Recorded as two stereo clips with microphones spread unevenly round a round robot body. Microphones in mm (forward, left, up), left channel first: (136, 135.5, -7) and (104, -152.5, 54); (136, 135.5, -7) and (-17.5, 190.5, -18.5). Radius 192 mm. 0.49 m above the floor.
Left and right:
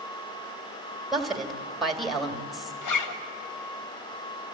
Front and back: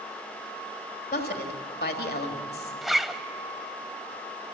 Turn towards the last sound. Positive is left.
turn(degrees=70)